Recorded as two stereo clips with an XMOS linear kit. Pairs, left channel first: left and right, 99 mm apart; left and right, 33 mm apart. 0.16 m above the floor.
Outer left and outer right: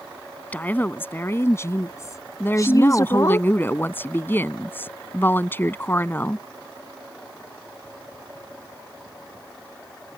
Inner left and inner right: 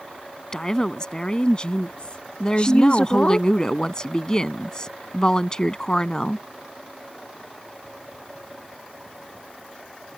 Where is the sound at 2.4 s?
20° left (ahead or behind).